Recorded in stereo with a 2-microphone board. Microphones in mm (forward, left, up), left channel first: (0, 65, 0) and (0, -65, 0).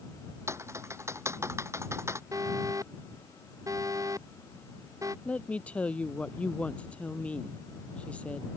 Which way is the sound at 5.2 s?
10° left (ahead or behind).